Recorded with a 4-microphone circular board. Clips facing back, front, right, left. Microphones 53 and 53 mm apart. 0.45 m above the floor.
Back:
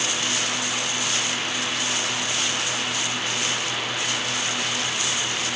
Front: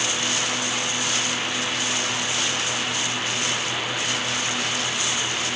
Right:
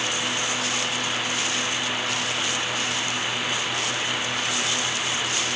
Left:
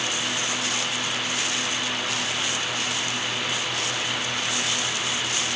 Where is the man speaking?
No man speaking in this recording.